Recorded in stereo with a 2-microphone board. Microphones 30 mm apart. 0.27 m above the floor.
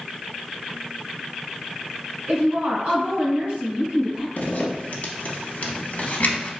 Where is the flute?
I don't hear a flute.